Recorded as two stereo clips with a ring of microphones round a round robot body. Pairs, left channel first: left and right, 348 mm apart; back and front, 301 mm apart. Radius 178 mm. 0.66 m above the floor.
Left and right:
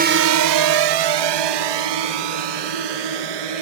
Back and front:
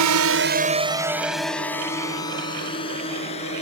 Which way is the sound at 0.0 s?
25° right.